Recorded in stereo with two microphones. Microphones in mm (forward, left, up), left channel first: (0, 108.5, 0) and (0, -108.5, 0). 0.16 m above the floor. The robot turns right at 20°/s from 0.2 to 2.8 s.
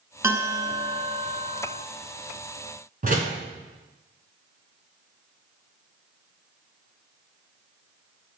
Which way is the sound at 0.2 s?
165° right.